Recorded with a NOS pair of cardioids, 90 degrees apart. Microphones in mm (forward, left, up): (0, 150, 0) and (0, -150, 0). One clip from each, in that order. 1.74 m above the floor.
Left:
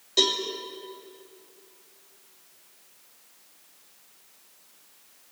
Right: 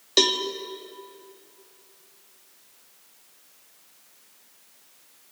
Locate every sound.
0.2 s a cowbell: 60° right, 2.5 m